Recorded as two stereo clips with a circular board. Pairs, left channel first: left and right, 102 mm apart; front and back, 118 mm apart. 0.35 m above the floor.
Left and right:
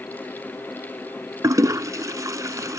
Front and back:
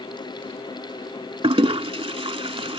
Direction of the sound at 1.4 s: 145° right.